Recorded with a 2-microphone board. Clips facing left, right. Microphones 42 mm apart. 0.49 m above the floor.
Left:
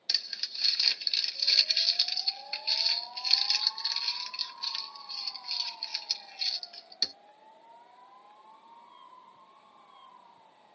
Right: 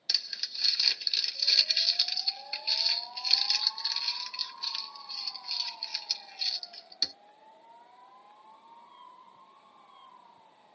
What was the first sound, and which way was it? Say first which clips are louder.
Crumpling: even; 5° left (ahead or behind).